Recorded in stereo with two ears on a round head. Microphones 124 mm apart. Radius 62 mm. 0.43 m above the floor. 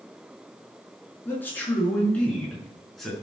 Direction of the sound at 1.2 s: 15° left (ahead or behind).